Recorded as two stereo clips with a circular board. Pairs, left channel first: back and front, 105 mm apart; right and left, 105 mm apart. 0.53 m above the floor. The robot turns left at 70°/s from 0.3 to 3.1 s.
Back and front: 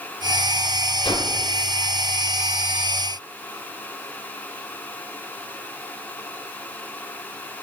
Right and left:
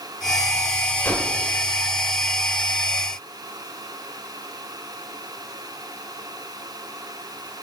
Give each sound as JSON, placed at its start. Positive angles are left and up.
{"t": 1.0, "sound": "a whoosh", "azimuth_deg": -155, "distance_m": 1.9}